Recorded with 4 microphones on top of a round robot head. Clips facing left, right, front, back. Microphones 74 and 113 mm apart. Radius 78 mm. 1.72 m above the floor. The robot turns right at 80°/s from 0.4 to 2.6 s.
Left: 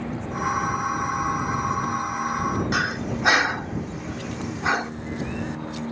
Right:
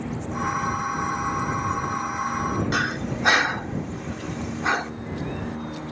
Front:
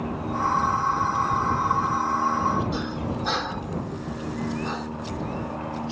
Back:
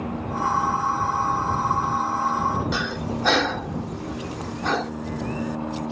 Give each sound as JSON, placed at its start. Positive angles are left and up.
{"t": 2.7, "sound": "breathing", "azimuth_deg": 175}